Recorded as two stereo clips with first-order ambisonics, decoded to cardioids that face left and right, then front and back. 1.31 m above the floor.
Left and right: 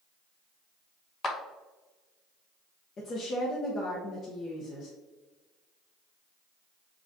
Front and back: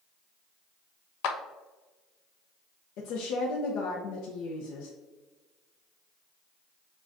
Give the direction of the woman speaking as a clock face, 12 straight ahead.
11 o'clock.